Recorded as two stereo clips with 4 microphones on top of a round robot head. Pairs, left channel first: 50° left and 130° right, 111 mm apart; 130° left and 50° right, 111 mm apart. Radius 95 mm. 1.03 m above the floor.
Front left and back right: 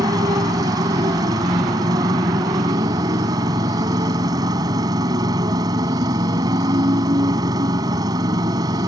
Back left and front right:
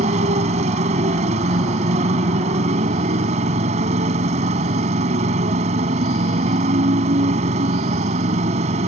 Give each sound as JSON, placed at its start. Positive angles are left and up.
{"t": 0.0, "sound": "a motorcycle", "azimuth_deg": -75}